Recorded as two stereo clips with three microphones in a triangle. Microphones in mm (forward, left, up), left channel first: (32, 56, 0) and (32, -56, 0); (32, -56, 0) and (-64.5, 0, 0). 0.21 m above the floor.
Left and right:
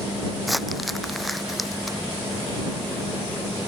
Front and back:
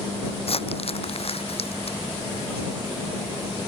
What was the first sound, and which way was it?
Crumpling, straight ahead.